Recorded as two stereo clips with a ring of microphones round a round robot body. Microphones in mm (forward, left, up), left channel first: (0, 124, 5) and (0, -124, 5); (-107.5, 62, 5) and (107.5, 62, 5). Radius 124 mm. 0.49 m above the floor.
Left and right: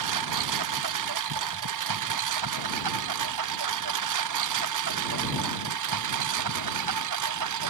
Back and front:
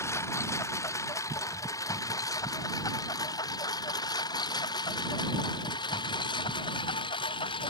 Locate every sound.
0.0 s a lawn mower: 100° right; by 7.7 s 110° right